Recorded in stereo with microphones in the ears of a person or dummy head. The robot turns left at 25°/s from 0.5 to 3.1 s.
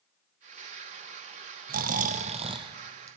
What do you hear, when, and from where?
1.7 s snoring: 130° right, 0.6 m; by 3.2 s 165° right, 0.6 m